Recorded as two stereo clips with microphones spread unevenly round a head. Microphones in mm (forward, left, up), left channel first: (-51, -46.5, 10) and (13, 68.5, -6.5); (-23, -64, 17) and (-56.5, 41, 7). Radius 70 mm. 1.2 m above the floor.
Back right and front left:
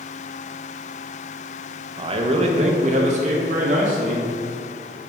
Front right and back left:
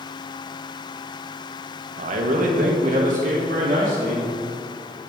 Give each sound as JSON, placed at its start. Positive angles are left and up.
{"t": 2.0, "sound": "a man speaking", "azimuth_deg": 110, "distance_m": 0.9}